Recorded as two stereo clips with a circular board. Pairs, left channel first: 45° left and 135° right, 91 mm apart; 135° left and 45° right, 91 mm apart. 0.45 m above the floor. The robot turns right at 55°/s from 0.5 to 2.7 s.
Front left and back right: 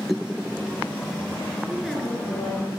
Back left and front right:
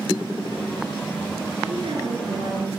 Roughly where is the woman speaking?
Ahead right.